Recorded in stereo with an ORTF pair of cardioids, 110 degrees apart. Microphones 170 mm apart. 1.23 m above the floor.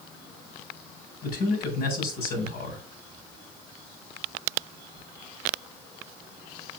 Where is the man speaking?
65° left, 4.5 m.